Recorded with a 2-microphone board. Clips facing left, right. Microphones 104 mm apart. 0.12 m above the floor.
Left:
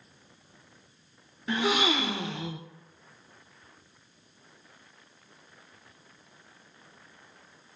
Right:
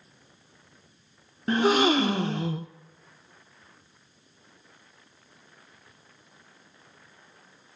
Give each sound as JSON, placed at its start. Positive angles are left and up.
{"t": 1.5, "sound": "a gasp", "side_deg": -45, "distance_m": 0.6}